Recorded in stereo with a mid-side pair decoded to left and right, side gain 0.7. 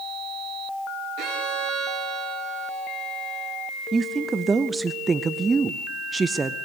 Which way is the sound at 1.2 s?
55° right.